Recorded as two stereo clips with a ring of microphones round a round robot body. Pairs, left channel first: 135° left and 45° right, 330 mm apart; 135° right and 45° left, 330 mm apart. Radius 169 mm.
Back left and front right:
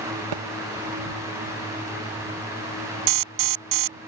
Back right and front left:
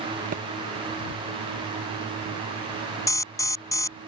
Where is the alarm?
55° right.